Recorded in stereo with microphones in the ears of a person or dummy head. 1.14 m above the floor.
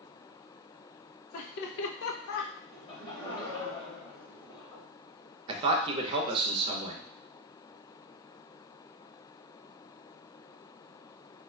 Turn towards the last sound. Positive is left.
turn(degrees=-30)  # may be behind; listen again after turning